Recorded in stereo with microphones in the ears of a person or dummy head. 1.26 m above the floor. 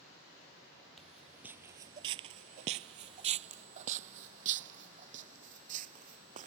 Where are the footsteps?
Centre (ahead or behind); by 6.5 s 45° right (ahead or behind).